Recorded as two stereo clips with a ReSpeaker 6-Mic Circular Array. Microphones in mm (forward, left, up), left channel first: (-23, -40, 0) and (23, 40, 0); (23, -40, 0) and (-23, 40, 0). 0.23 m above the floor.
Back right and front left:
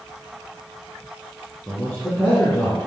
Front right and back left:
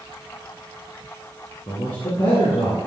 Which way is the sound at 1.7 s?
50° right.